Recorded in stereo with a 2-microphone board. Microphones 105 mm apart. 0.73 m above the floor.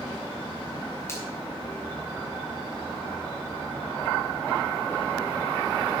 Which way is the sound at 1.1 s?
25° left (ahead or behind).